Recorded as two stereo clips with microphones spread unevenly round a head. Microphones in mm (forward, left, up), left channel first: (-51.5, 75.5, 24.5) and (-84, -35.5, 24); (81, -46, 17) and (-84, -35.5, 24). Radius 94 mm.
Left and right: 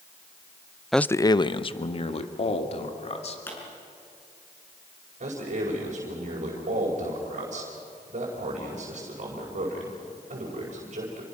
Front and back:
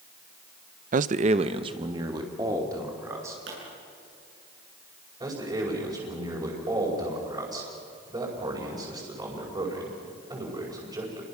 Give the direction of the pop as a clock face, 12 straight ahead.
7 o'clock.